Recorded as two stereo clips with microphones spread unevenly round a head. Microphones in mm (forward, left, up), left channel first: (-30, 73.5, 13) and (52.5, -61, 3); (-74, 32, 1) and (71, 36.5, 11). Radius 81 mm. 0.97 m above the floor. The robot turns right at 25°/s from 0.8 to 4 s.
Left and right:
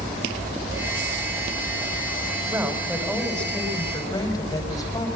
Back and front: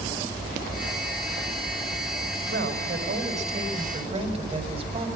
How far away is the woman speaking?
About 5.5 m.